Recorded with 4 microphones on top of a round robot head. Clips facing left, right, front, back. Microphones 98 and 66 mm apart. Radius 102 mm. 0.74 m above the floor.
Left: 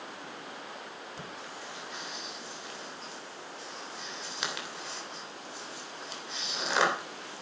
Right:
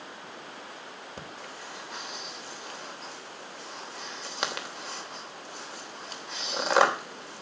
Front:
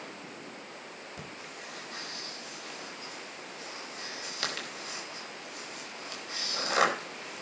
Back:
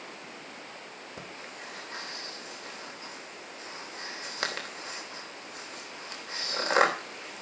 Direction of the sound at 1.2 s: 125° right.